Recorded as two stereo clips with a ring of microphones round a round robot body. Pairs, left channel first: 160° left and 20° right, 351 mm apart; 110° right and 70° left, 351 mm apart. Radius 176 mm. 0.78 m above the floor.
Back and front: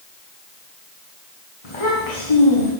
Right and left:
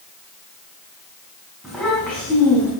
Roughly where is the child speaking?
Behind left.